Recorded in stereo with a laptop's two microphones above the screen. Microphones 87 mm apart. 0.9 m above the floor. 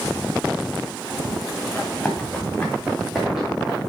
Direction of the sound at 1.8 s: 20° left (ahead or behind).